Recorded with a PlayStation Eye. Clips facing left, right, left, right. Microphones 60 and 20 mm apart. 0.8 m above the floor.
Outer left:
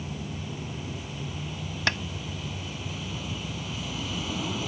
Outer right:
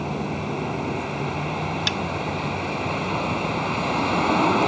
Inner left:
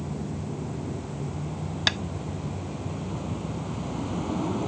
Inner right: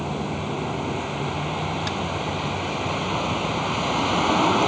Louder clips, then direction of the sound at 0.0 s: Outer right 10 dB, inner right 7 dB; 60° right (ahead or behind).